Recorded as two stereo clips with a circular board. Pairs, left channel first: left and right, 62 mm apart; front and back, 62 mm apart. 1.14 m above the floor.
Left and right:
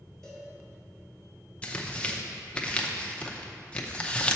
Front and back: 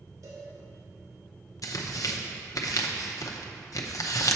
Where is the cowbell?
170° left, 2.5 m.